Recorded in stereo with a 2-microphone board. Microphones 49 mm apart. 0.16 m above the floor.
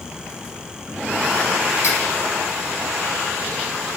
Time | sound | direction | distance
1.8 | cutlery clinking | 45° right (ahead or behind) | 3 m